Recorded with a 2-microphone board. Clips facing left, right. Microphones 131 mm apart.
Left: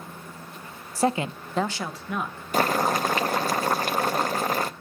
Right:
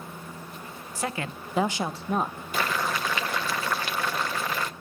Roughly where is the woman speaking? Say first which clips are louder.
Left 8 dB; left.